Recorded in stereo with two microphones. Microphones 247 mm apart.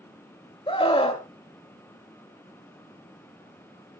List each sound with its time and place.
0.7 s a scream: 20° left (ahead or behind), 1.0 m